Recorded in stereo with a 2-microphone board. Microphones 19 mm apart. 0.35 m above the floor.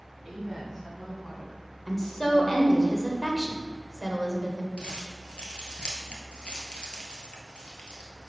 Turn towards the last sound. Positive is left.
turn(degrees=75)  # may be behind; listen again after turning